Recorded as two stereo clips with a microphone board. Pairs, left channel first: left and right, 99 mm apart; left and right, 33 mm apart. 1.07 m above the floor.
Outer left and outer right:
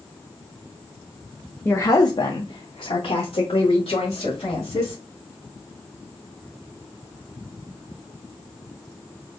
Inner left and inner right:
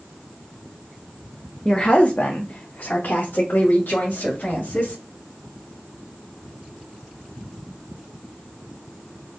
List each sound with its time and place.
1.6 s a woman speaking: 20° left (ahead or behind), 0.6 m; by 5.0 s 75° left (ahead or behind), 2 m